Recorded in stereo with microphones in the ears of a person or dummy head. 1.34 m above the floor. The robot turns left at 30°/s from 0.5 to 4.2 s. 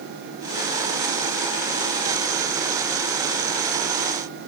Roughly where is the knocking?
No knocking in this recording.